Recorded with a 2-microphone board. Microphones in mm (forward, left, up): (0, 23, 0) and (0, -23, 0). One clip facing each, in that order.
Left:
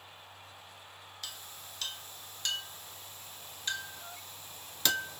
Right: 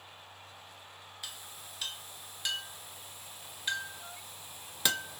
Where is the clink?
10° right (ahead or behind), 0.7 m.